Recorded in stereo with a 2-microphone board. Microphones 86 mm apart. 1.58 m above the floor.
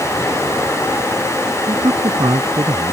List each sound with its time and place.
1.7 s a man speaking: 70° right (ahead or behind)